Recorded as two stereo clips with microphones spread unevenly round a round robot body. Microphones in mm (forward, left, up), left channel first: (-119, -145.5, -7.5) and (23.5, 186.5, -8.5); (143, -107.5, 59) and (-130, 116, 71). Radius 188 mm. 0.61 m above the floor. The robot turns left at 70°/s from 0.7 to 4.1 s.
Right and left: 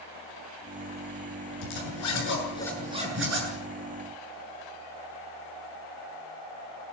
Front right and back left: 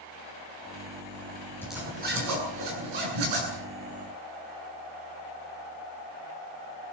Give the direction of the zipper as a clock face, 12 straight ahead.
4 o'clock.